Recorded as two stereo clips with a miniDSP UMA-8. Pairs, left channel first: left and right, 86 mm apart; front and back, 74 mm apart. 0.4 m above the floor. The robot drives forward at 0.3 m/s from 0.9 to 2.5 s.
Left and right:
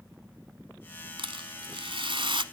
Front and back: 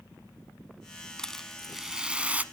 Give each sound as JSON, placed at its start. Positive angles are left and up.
{"t": 1.2, "sound": "a rattle", "azimuth_deg": -80, "distance_m": 0.7}